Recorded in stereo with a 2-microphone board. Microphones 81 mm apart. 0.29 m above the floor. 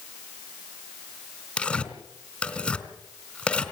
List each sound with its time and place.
1.6 s tearing paper: 15° left (ahead or behind), 3 m